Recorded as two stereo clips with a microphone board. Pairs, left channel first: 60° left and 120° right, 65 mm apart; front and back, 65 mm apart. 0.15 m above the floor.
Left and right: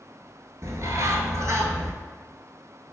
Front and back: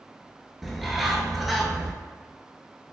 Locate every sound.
0.6 s a bird: 90° right, 0.5 m